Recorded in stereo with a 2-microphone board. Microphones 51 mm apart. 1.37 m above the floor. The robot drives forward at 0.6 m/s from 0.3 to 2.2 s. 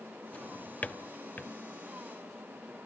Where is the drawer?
25° left (ahead or behind), 1.1 m; by 1.5 s 40° left (ahead or behind), 0.8 m.